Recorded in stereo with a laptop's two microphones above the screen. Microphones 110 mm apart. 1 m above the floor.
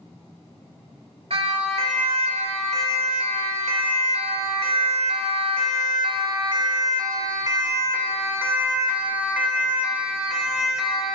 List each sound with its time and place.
1.3 s a siren: 70° right (ahead or behind), 4.5 m; by 11.1 s centre (ahead or behind), 5 m